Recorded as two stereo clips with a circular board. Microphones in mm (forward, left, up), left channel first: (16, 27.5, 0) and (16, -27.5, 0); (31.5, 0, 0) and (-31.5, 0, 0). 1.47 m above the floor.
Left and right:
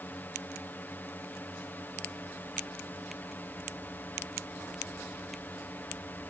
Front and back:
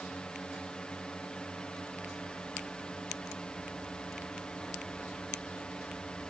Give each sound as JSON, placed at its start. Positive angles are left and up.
{"t": 0.0, "sound": "a drone", "azimuth_deg": 65}